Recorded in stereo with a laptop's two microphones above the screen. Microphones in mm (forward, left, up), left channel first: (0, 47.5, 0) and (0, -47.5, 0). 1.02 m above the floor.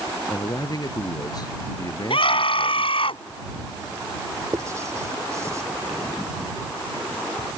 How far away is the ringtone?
I don't hear a ringtone.